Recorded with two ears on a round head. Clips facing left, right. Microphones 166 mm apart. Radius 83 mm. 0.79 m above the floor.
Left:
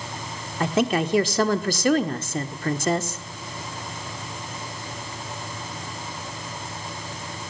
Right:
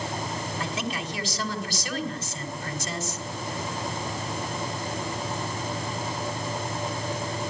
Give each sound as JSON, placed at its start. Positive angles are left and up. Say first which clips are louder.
{"t": 0.6, "sound": "a woman speaking", "louder": "left 14 dB", "side_deg": 45, "distance_m": 1.8}